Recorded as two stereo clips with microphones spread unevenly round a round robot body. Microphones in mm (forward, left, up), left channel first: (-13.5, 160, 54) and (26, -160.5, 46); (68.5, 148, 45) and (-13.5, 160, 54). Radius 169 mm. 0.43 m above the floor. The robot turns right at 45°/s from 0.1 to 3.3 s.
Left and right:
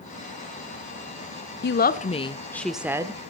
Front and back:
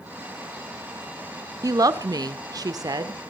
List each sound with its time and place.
1.6 s a woman speaking: 140° left, 1.0 m; by 3.2 s 150° right, 1.0 m